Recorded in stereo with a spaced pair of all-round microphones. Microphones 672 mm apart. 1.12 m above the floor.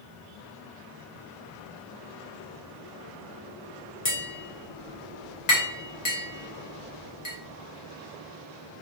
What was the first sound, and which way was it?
Tapping, 75° left (ahead or behind).